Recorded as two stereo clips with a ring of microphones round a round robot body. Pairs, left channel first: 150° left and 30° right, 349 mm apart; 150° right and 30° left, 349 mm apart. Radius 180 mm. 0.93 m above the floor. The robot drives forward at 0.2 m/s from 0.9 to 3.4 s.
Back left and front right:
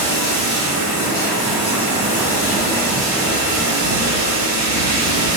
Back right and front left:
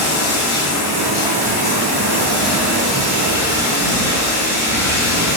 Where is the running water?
155° right, 0.9 m; by 5.4 s 165° right, 1.4 m.